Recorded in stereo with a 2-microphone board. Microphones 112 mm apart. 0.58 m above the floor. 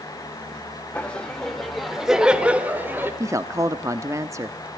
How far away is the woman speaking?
About 0.9 m.